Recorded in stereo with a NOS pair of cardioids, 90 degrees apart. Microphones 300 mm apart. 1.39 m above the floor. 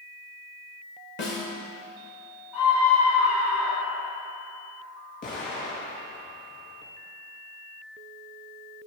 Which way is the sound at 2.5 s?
70° left.